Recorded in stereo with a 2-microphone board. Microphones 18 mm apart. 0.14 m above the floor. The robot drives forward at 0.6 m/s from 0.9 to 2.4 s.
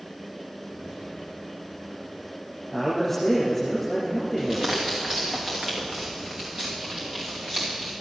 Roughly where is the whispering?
Right.